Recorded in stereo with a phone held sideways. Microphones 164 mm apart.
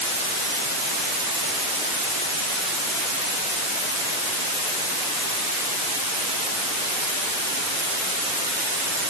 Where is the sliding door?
I don't hear a sliding door.